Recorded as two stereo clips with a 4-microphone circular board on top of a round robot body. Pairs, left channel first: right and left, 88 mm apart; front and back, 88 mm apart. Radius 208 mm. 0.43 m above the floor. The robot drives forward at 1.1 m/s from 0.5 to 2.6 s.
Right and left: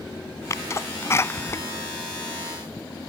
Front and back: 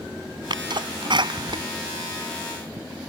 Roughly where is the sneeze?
Behind right.